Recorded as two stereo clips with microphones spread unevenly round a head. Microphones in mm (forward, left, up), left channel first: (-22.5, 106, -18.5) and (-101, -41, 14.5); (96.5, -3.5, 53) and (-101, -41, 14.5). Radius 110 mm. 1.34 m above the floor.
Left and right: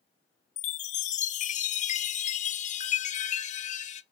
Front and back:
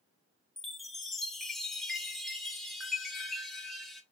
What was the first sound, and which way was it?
A chime, 80° left.